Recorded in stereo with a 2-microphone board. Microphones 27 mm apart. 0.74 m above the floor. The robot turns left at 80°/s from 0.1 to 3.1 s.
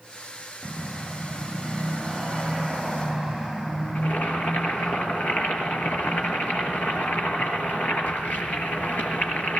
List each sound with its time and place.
4.0 s boiling: 80° left, 5 m